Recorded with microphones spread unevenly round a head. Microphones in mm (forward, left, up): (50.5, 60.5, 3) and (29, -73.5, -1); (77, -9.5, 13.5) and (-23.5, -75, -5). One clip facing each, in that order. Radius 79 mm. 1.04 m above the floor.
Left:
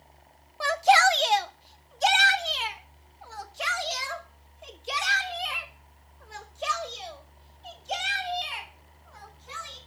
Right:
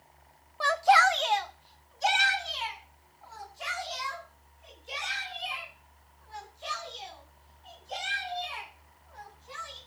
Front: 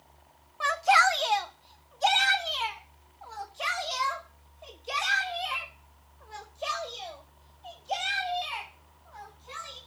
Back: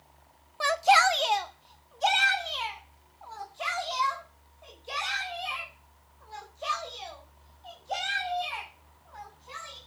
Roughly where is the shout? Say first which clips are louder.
Left 2 dB, back 1 dB; behind.